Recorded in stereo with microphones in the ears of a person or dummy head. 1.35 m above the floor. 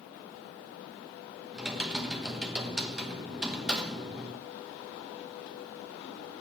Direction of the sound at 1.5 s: 5° right (ahead or behind).